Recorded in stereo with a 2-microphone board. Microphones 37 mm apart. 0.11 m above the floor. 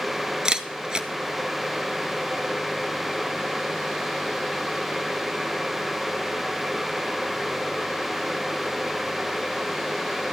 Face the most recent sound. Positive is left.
turn(degrees=-20)  # may be behind; listen again after turning